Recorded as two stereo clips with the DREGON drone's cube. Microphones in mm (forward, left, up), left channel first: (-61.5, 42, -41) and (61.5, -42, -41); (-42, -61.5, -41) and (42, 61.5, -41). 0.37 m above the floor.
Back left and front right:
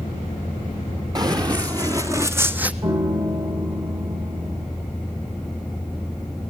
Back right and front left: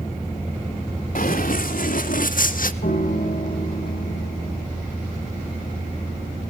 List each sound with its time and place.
1.1 s running footsteps: 95° right, 2 m; by 2.7 s 115° right, 0.9 m
2.8 s a piano: 90° right, 2.5 m